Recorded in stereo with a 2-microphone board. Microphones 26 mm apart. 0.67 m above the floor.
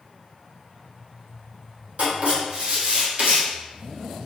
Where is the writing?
80° right, 1.7 m.